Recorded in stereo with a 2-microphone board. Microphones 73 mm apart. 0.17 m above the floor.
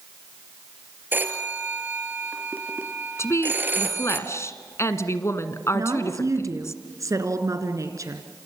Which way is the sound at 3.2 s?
40° left (ahead or behind).